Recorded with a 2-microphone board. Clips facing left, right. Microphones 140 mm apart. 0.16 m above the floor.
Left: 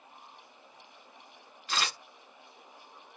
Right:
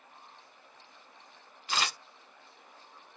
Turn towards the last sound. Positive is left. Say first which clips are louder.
# right 1 dB
turn(degrees=-15)  # may be behind; listen again after turning